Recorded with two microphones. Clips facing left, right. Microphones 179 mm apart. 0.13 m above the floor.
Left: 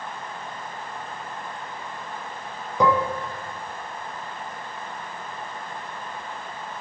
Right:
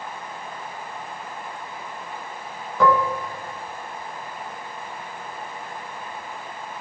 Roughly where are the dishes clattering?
Centre.